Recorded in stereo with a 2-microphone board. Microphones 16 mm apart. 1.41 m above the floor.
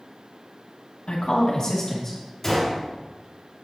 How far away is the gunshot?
About 3.5 m.